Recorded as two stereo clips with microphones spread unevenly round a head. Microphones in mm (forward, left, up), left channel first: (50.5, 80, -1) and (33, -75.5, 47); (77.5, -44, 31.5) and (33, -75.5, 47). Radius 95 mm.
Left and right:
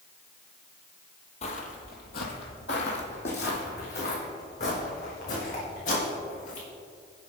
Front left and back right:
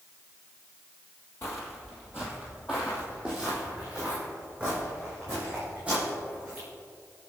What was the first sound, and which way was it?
Footsteps, 60° left.